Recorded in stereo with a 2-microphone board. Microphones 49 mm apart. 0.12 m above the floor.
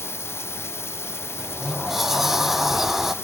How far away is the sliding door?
About 0.8 m.